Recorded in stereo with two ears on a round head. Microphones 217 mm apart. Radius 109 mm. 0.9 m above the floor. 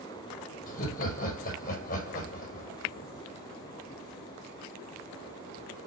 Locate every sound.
0.7 s laughter: 40° left (ahead or behind), 5 m